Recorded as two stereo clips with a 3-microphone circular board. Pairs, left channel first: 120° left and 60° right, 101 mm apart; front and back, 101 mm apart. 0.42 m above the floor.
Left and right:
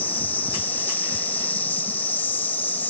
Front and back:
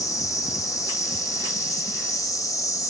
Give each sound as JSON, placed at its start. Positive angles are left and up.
{"t": 0.0, "sound": "an insect", "azimuth_deg": 50, "distance_m": 1.8}